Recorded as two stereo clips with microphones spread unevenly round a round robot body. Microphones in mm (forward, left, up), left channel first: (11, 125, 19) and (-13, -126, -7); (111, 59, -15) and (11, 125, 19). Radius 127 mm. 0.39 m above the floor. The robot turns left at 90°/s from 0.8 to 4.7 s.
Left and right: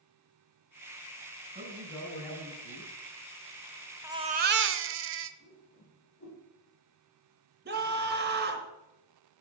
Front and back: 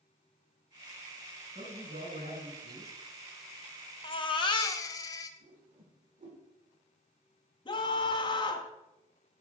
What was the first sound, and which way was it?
A man speaking, 160° right.